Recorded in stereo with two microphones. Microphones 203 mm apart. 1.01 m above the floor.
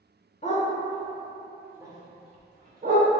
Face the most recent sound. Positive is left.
turn(degrees=-50)  # may be behind; listen again after turning